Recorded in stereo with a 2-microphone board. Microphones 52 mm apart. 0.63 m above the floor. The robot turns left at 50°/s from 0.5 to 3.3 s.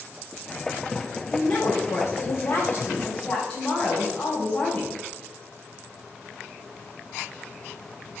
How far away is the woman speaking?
About 3 m.